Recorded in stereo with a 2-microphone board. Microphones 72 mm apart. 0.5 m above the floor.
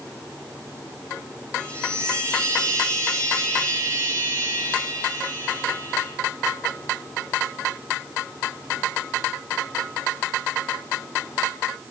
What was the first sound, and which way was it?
A chime, 45° right (ahead or behind).